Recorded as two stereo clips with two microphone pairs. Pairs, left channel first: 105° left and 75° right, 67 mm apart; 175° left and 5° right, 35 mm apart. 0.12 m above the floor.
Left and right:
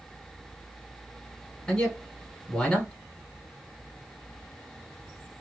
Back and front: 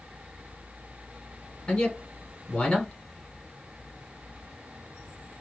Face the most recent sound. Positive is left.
turn(degrees=165)